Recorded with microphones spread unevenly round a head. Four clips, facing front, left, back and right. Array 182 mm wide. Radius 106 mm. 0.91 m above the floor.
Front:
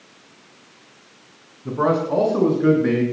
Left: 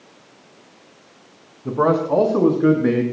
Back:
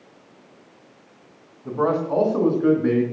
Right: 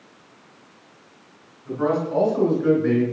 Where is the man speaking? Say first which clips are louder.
Left 5 dB, front 2 dB; 75° left, 7.5 m; by 3.0 s 80° left, 9 m.